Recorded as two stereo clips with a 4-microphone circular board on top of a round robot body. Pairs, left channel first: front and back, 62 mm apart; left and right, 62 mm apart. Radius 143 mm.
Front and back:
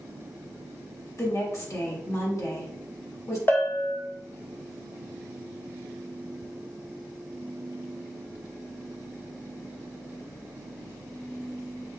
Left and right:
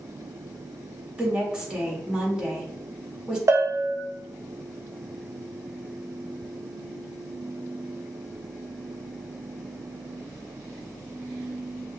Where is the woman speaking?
15° right, 1.6 m.